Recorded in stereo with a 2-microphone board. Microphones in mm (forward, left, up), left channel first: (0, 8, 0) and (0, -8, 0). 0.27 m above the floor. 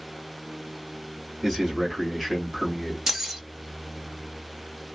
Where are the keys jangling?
30° right (ahead or behind), 0.6 m.